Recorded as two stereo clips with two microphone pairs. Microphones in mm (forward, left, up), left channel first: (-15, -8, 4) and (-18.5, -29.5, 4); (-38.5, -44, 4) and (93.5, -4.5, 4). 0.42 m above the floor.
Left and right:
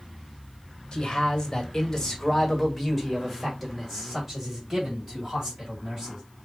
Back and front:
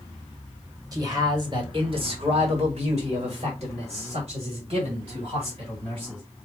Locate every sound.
0.9 s a man speaking: 70° left, 1.4 m; by 6.2 s 25° right, 3 m